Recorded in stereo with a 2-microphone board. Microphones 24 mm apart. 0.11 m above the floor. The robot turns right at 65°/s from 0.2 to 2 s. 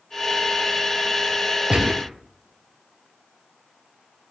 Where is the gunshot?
45° right (ahead or behind), 0.7 m; by 2.1 s 55° right (ahead or behind), 0.7 m.